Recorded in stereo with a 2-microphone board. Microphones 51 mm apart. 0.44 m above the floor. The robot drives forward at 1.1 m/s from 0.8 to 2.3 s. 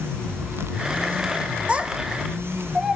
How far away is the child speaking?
About 0.9 m.